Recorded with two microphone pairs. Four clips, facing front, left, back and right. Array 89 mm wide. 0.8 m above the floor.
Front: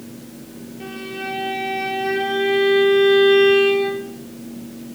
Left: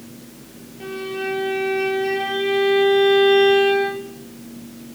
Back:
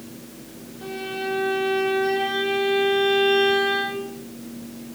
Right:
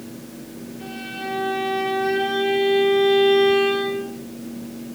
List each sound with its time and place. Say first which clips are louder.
0.8 s a violin: left 6 dB, back 1 dB; 35° left, 5 m